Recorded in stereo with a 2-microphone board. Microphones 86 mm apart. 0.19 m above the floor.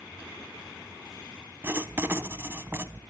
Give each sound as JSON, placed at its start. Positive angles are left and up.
{"t": 1.6, "sound": "writing", "side_deg": -25, "distance_m": 0.7}